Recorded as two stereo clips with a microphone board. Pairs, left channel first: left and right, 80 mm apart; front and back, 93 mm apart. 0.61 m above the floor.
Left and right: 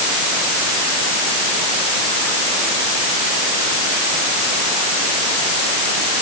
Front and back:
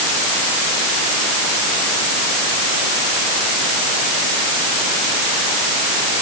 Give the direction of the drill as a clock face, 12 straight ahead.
I don't hear a drill.